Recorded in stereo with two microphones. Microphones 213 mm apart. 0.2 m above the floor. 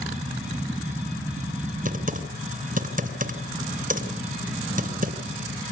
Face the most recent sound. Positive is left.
turn(degrees=-40)  # may be behind; listen again after turning